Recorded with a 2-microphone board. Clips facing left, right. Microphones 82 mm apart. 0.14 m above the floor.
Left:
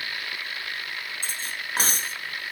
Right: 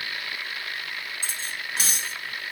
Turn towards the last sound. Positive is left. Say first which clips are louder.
# even
turn(degrees=45)  # may be behind; listen again after turning